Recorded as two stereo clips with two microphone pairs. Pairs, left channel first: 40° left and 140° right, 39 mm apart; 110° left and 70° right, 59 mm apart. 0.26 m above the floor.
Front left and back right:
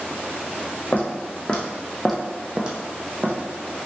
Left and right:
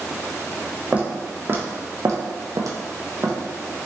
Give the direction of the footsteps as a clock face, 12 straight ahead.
12 o'clock.